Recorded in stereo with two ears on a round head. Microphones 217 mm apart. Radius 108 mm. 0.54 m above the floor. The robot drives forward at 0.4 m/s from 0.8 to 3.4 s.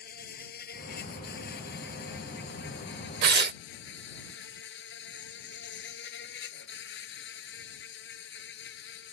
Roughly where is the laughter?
I don't hear laughter.